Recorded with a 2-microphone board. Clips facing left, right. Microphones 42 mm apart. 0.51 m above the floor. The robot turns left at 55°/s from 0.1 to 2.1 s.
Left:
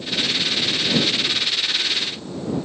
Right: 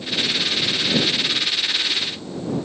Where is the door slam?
No door slam in this recording.